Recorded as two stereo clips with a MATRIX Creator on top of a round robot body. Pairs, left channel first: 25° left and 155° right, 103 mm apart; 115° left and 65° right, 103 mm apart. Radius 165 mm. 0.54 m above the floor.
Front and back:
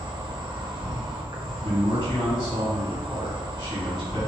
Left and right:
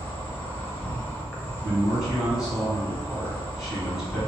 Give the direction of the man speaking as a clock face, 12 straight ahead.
11 o'clock.